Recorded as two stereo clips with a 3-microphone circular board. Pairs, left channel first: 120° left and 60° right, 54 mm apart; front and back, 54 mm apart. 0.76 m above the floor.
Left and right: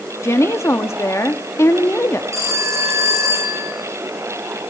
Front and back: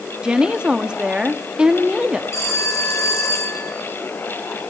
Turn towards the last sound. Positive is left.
turn(degrees=-35)